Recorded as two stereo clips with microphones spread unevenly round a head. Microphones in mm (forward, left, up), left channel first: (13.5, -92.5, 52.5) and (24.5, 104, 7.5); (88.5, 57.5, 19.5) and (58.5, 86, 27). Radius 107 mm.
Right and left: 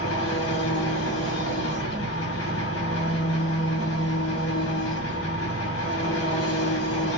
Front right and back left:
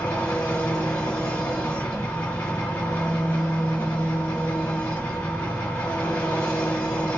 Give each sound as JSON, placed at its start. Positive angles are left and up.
{"t": 0.0, "sound": "an engine running", "azimuth_deg": -70, "distance_m": 1.6}